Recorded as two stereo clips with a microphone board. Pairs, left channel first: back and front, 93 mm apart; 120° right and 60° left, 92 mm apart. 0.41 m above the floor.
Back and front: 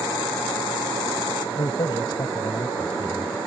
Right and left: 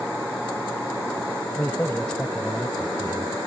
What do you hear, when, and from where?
1.6 s a man speaking: 175° left; by 3.4 s 120° left